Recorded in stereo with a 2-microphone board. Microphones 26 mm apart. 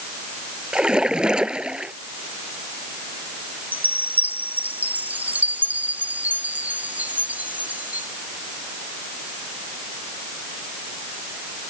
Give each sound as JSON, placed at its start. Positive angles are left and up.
{"t": 0.7, "sound": "a splash", "side_deg": -30}
{"t": 3.7, "sound": "a chime", "side_deg": -75}